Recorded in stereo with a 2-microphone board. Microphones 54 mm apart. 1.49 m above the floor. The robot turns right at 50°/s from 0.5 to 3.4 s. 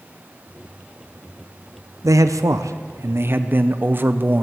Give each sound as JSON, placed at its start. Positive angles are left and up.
{"t": 2.0, "sound": "a man speaking", "azimuth_deg": -105, "distance_m": 0.7}